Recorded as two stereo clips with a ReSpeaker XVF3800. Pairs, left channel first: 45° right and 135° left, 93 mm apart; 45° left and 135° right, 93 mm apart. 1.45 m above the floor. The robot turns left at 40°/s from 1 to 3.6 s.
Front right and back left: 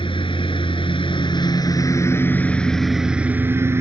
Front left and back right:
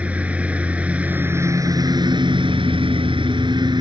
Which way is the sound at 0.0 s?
60° right.